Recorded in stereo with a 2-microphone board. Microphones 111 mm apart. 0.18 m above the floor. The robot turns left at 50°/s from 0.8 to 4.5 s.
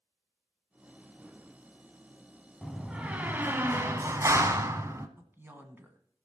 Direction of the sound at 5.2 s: 20° right (ahead or behind).